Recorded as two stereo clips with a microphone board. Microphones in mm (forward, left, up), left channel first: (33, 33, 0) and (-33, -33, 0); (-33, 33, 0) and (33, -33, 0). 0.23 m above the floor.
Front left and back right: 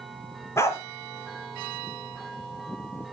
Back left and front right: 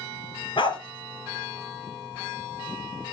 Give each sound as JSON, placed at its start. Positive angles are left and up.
{"t": 0.6, "sound": "a dog barking", "azimuth_deg": 105, "distance_m": 1.5}